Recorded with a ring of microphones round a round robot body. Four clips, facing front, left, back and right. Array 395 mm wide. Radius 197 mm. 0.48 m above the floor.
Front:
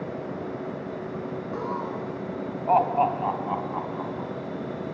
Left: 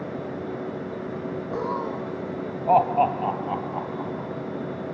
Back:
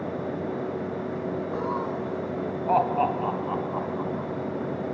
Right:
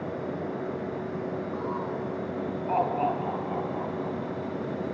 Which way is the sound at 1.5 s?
105° left.